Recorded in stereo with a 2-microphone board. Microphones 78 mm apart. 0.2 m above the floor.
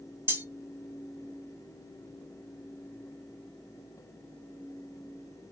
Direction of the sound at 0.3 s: 25° right (ahead or behind).